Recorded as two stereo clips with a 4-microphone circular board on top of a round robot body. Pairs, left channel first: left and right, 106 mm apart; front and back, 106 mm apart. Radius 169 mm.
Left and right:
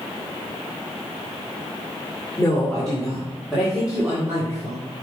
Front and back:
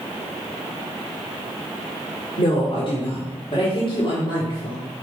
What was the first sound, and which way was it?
A woman speaking, 15° left.